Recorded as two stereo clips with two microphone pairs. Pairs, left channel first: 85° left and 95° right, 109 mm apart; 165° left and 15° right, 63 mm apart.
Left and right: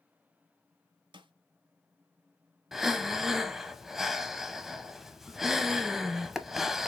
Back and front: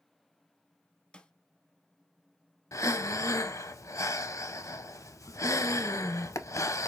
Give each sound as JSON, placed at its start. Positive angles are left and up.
{"t": 1.1, "sound": "a snare drum", "azimuth_deg": -125, "distance_m": 0.7}
{"t": 2.7, "sound": "breathing", "azimuth_deg": 175, "distance_m": 0.6}